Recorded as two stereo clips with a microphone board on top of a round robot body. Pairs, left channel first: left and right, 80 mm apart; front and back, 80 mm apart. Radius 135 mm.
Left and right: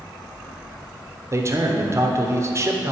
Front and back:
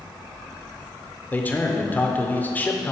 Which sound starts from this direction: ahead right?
A man speaking, at 1.3 s.